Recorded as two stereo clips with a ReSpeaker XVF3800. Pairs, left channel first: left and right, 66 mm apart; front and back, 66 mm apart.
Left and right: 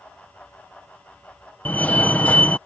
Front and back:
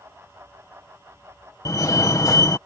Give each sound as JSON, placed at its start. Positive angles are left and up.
{"t": 1.6, "sound": "a fire alarm", "azimuth_deg": 25}